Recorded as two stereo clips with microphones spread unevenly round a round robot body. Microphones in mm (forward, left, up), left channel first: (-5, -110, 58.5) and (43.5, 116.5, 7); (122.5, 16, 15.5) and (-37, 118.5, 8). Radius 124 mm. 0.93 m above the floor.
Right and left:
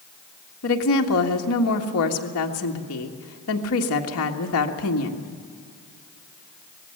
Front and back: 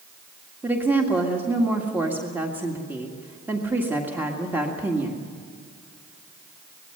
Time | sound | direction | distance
0.6 | a woman speaking | 130° right | 1.8 m